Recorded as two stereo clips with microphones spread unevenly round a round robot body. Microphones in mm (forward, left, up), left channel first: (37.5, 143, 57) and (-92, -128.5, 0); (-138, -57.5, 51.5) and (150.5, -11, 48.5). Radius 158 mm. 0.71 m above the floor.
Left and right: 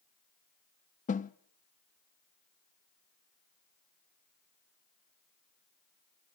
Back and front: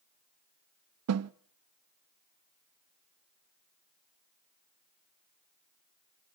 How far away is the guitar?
No guitar in this recording.